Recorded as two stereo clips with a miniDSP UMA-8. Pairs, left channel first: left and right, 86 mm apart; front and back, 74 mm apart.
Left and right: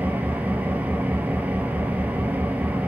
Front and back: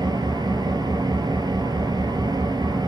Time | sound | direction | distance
0.0 | an engine running | 165° right | 1.5 m